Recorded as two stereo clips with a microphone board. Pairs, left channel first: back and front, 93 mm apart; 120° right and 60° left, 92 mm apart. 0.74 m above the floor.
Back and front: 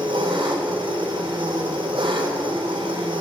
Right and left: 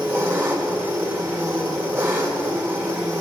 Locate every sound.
0.0 s an engine running: 5° right, 2.5 m